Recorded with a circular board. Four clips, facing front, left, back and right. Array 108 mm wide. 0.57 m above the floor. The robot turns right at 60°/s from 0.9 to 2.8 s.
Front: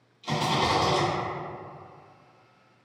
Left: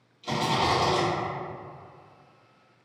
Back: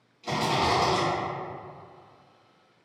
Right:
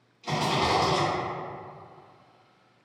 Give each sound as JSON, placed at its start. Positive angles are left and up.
{"t": 0.2, "sound": "a rattle", "azimuth_deg": -130, "distance_m": 1.0}